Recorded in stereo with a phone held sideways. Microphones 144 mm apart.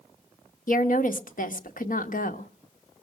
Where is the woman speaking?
70° left (ahead or behind), 1.2 m.